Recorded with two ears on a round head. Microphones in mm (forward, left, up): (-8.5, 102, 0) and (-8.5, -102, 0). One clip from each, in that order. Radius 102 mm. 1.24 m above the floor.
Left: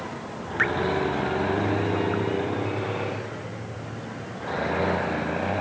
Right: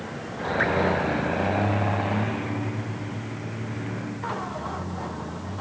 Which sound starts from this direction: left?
Dripping, at 0.6 s.